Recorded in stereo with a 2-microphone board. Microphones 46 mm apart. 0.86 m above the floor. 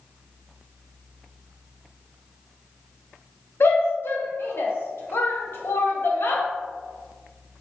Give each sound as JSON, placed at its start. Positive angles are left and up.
{"t": 3.6, "sound": "a shout", "side_deg": 60, "distance_m": 0.7}